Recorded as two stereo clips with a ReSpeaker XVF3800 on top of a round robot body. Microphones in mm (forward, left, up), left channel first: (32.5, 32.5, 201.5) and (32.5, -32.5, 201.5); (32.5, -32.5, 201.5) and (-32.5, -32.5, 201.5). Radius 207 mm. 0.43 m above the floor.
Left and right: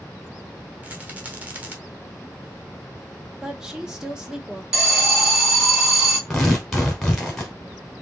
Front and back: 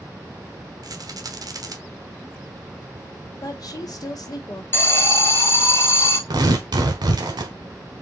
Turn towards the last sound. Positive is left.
turn(degrees=180)